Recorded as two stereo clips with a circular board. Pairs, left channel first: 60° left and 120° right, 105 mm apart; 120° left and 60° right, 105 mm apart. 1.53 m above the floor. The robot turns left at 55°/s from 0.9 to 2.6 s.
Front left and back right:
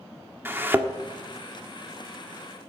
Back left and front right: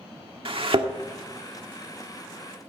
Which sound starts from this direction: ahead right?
A thud, at 0.5 s.